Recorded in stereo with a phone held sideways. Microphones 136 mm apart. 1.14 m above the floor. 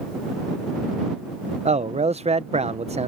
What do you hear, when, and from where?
1.6 s a man speaking: 50° right (ahead or behind)